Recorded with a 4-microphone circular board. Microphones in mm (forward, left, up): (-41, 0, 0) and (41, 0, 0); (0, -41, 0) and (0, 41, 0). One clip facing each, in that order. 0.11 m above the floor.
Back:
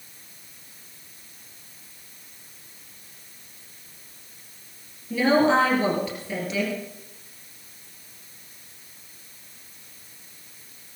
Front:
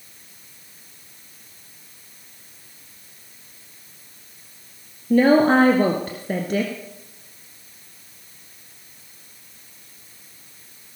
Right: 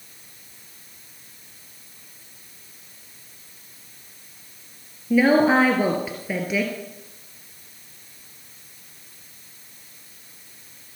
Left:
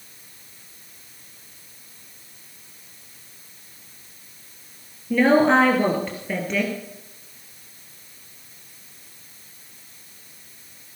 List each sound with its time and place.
5.1 s a woman speaking: 10° right, 2 m